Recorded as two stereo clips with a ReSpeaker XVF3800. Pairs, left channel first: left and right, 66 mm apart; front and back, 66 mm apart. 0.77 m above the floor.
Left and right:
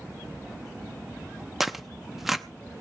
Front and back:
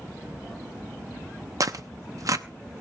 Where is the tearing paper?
175° right, 0.7 m.